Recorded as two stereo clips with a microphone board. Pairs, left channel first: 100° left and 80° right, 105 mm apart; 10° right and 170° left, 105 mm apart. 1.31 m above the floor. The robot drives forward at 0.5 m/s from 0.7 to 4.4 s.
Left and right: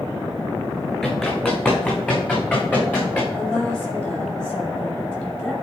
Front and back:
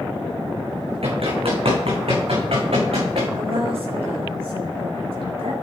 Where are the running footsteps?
Straight behind, 5 m; by 3.2 s 170° left, 5.5 m.